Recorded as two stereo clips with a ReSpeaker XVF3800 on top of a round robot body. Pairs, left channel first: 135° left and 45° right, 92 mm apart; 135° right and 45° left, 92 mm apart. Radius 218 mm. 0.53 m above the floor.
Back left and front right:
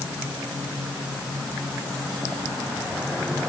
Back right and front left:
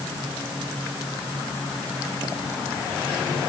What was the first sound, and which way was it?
Only background noise.